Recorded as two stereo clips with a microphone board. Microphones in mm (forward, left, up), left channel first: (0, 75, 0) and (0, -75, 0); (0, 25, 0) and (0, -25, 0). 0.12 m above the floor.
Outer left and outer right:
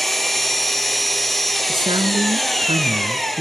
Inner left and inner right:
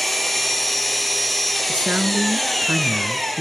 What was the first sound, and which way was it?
An engine running, centre (ahead or behind).